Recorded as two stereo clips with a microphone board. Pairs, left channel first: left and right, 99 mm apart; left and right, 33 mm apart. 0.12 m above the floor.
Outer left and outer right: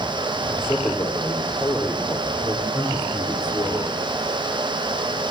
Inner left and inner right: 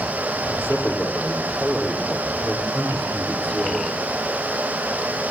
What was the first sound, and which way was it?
A man speaking, 20° left (ahead or behind).